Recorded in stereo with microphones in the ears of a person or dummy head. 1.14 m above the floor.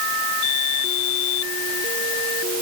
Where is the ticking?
I don't hear ticking.